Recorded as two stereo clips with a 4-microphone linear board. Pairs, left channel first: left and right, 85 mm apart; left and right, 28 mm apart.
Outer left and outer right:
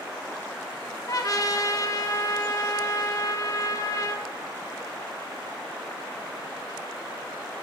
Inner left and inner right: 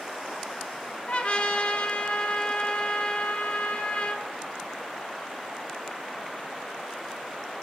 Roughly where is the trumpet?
Left.